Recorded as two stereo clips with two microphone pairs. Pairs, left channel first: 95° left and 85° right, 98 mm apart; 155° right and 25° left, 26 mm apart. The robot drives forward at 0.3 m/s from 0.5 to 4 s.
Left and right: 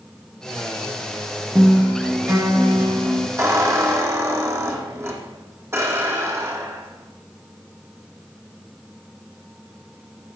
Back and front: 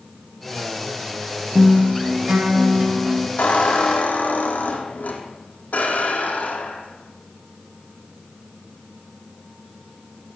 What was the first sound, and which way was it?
A guitar, 20° right.